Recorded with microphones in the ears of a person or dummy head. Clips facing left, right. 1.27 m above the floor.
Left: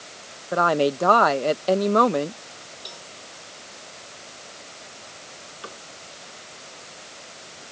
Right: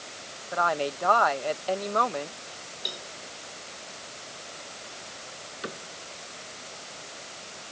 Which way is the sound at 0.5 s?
55° left (ahead or behind).